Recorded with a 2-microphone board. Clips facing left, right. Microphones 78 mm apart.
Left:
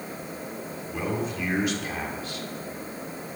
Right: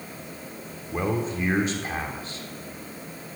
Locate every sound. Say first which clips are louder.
0.9 s a man speaking: right 3 dB; 30° right (ahead or behind), 1.9 m